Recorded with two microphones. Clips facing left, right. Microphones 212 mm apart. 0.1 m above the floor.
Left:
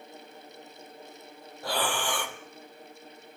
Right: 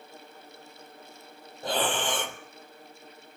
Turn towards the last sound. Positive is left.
turn(degrees=-20)  # may be behind; listen again after turning